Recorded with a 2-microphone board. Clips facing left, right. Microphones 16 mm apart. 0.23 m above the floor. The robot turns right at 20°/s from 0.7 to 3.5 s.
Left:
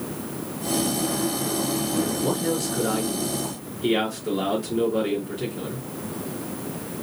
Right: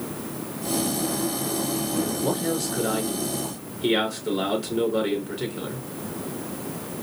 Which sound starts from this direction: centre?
A man speaking, at 2.2 s.